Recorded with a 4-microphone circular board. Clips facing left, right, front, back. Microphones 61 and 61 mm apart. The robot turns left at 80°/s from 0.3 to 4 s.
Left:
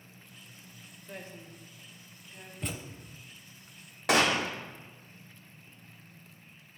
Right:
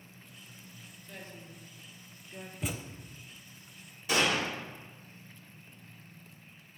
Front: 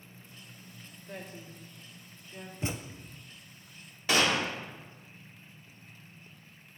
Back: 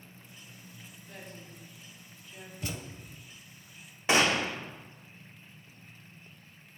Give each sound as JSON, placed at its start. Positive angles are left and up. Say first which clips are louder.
{"t": 1.1, "sound": "a woman speaking", "louder": "left 3 dB, front 4 dB", "azimuth_deg": 40, "distance_m": 1.6}
{"t": 2.6, "sound": "a thud", "louder": "right 1 dB, front 3 dB", "azimuth_deg": -10, "distance_m": 0.5}
{"t": 4.1, "sound": "a gunshot", "louder": "left 3 dB, back 1 dB", "azimuth_deg": 110, "distance_m": 0.9}